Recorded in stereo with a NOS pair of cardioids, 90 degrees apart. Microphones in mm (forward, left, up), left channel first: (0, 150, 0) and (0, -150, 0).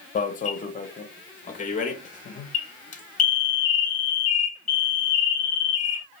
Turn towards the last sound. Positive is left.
turn(degrees=25)